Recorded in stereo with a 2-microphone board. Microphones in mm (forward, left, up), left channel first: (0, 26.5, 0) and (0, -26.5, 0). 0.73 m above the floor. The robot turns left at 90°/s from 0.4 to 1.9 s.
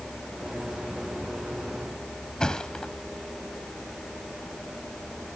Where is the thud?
15° left (ahead or behind), 1.7 m.